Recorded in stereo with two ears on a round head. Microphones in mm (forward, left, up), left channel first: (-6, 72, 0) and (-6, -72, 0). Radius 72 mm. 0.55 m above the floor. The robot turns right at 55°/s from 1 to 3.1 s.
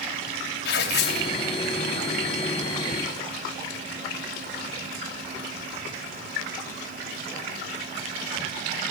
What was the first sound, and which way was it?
Tearing paper, 75° left (ahead or behind).